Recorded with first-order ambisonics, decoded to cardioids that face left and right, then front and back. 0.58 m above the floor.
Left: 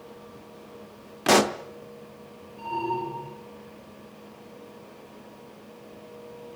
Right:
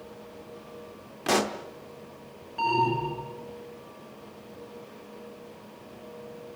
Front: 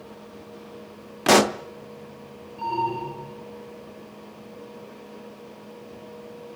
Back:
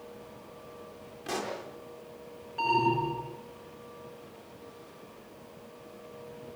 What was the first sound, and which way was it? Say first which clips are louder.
A pop: left 6 dB, front 17 dB; 20° left.